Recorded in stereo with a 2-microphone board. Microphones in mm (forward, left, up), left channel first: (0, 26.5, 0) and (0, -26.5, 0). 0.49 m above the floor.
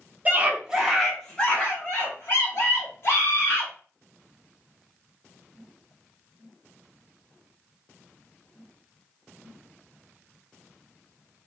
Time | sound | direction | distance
0.2 | a scream | 30° right (ahead or behind) | 0.9 m